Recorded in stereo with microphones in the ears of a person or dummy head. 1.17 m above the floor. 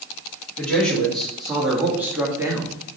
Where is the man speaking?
Centre (ahead or behind), 2.5 m; by 2.7 s 20° right (ahead or behind), 1.7 m.